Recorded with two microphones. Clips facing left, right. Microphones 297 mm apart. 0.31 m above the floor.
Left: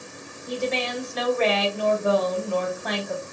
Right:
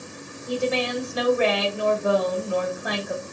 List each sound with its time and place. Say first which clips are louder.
0.5 s a woman speaking: right 3 dB; 10° right (ahead or behind), 1.1 m